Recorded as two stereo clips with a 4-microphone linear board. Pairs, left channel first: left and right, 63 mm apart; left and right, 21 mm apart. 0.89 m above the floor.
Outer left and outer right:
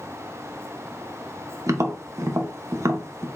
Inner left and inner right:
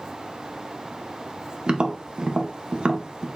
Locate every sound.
1.7 s tapping: 55° right (ahead or behind), 0.7 m